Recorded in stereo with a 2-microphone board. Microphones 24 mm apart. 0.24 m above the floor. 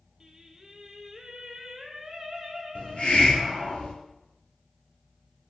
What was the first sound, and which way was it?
Singing, 20° right (ahead or behind).